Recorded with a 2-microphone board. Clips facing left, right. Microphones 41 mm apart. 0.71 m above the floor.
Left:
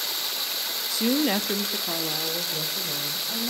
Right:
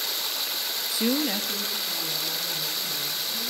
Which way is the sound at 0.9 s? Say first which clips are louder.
Left 3 dB; 20° right (ahead or behind).